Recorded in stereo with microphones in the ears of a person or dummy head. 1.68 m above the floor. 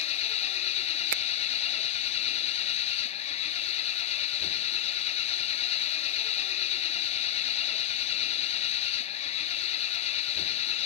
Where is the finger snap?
50° right (ahead or behind).